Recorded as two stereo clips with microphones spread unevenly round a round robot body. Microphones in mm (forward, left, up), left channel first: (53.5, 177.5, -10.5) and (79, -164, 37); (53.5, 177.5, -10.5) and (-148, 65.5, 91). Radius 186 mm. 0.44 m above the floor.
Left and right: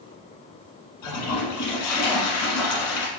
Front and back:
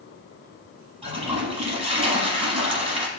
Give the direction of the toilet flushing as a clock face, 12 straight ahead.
7 o'clock.